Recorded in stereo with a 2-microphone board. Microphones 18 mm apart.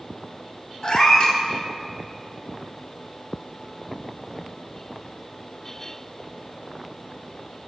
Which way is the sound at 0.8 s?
50° left (ahead or behind).